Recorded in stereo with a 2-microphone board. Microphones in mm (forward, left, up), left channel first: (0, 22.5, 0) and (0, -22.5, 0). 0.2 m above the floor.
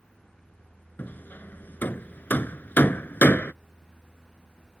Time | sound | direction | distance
1.0 | hammering | 45° left (ahead or behind) | ?